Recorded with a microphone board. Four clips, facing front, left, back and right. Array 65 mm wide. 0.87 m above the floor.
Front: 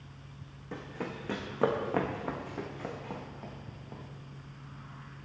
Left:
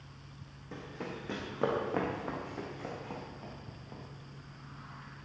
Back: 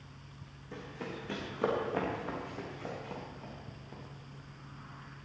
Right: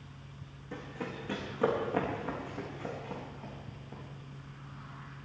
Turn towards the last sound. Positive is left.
turn(degrees=30)